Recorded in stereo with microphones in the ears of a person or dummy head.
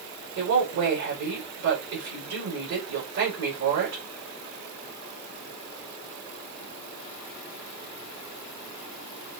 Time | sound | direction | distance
0.4 | a woman speaking | 50° right (ahead or behind) | 5 m